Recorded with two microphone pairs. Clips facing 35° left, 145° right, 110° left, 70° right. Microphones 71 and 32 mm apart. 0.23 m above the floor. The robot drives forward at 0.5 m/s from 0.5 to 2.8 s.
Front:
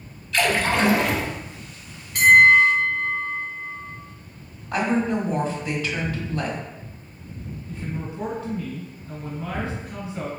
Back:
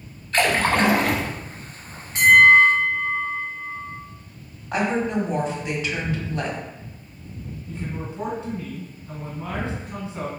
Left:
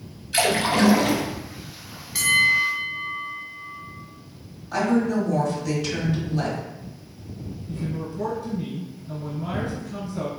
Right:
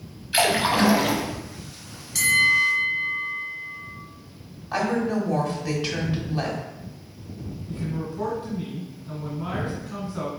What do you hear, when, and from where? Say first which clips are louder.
0.3 s a splash: back 1 dB, even; 125° right, 0.6 m; by 1.3 s 155° right, 0.8 m
2.1 s a bell: back 1 dB, even; 175° left, 0.8 m
4.7 s a woman speaking: even, left 2 dB; 100° right, 1.2 m
7.7 s a man speaking: even, even; 95° right, 1.6 m